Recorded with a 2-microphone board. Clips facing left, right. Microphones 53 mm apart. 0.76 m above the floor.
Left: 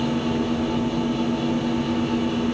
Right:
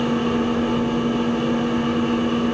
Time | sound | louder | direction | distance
0.0 | an engine running | right 3 dB | 30° right (ahead or behind) | 6 m